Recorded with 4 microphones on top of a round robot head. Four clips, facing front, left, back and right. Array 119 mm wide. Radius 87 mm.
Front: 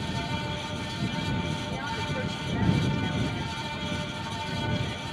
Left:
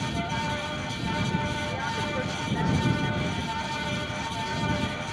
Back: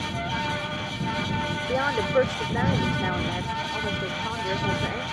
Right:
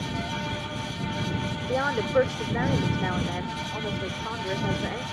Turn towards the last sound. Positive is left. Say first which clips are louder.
# right 6 dB, back 9 dB
turn(degrees=-140)